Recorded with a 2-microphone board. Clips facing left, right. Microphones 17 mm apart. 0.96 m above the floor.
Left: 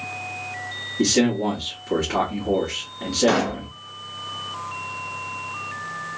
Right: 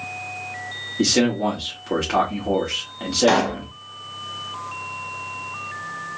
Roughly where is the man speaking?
Right.